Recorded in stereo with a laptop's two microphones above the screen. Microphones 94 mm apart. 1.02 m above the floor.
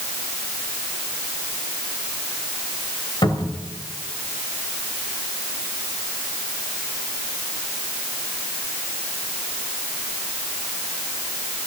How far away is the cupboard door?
About 1.9 m.